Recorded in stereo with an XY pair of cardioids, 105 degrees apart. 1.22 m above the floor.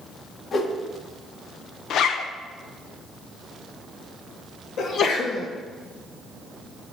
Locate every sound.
0.5 s a whoosh: 50° left, 1.5 m
1.9 s a zipper: 70° left, 0.6 m
4.8 s a sneeze: 65° left, 1.6 m